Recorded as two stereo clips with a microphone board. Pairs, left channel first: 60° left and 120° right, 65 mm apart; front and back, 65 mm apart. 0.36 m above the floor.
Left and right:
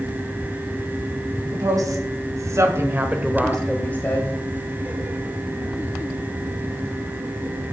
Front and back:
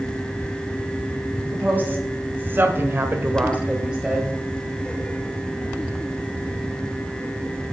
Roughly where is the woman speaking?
Behind right.